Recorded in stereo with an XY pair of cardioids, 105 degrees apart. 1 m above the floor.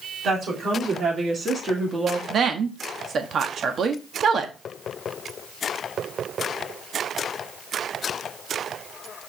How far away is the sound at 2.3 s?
About 1.4 m.